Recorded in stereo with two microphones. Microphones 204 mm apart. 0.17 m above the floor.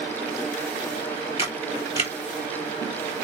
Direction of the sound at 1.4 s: 30° left (ahead or behind).